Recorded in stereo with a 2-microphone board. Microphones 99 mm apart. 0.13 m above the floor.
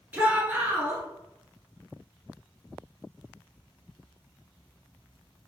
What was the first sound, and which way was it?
A shout, 15° right (ahead or behind).